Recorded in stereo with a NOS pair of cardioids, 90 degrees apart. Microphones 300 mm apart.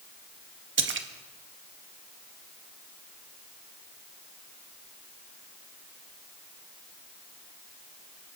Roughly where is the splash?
Ahead right.